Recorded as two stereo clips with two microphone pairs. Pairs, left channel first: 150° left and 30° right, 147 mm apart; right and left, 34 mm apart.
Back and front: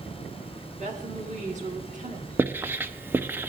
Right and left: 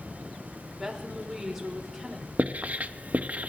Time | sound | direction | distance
0.8 | a woman speaking | 5° left | 3.5 m
2.4 | writing | 50° left | 0.8 m